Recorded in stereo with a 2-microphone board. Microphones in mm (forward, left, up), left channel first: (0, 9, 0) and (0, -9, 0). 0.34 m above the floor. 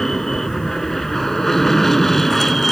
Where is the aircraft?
30° left (ahead or behind); by 2.7 s 20° left (ahead or behind).